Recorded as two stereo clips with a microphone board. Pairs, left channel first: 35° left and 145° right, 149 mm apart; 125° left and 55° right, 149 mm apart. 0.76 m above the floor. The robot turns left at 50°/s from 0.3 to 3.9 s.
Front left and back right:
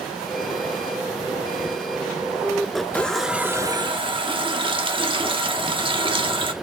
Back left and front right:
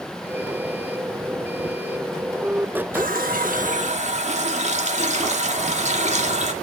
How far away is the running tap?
About 1.0 m.